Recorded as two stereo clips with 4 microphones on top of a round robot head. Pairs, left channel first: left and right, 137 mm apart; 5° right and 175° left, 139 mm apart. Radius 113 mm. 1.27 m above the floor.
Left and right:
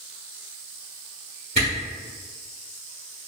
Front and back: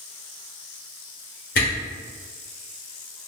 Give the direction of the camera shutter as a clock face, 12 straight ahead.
1 o'clock.